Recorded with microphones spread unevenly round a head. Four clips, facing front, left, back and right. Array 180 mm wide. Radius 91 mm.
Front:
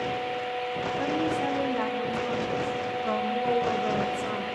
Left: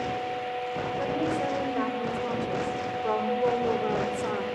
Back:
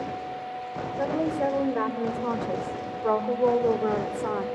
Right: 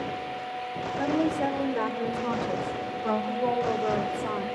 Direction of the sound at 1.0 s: 165° right.